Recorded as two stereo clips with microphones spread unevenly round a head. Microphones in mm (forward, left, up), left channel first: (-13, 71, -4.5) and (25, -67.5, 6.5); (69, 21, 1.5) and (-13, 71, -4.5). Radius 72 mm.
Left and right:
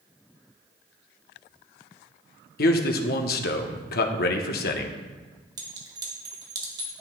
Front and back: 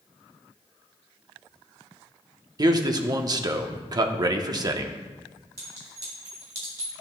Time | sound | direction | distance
2.6 | a man speaking | 105° left | 0.9 m
5.6 | a clink | 140° right | 1.5 m